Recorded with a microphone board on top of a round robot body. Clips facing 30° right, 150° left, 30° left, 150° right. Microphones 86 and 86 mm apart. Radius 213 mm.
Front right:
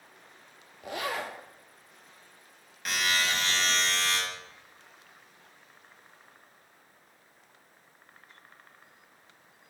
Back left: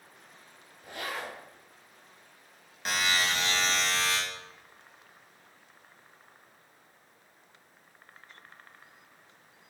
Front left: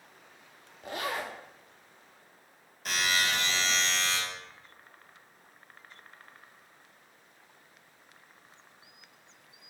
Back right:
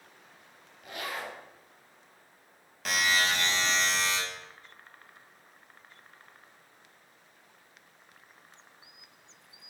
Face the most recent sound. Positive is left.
turn(degrees=-145)